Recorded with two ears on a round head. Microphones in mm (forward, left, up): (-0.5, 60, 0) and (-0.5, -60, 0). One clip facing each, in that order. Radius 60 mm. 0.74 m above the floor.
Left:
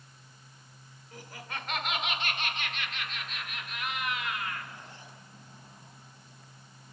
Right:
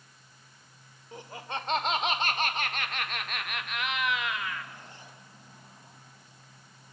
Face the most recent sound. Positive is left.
turn(degrees=-70)  # may be behind; listen again after turning